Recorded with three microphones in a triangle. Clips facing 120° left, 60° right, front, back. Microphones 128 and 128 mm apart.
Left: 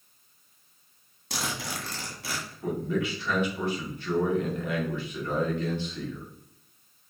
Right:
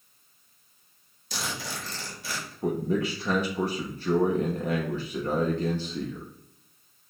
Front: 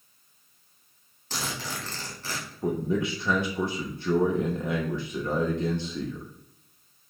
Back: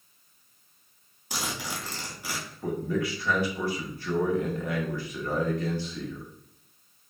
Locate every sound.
1.3 s a zipper: 105° left, 1.5 m
2.6 s a man speaking: 55° right, 0.7 m